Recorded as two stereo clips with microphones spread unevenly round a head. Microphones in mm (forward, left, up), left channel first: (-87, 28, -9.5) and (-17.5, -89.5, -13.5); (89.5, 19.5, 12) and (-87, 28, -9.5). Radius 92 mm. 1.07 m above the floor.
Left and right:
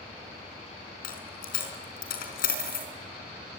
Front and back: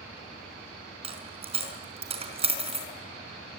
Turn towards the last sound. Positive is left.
turn(degrees=120)